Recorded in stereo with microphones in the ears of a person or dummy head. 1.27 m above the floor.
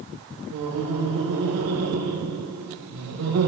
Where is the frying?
No frying in this recording.